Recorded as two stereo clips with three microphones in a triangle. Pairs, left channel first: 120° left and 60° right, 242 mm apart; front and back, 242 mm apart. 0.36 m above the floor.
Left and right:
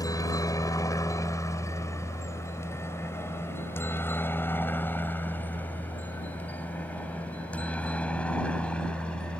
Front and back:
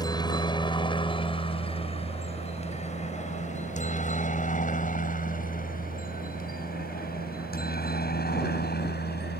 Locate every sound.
0.0 s a helicopter: 55° left; by 9.4 s 35° left